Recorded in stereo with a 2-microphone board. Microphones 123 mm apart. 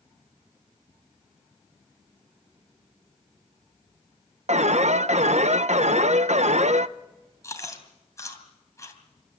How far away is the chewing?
About 2.5 m.